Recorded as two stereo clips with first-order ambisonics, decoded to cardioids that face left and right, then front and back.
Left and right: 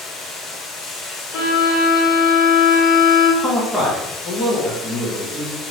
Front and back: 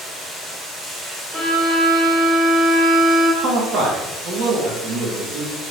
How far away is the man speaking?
About 1.3 m.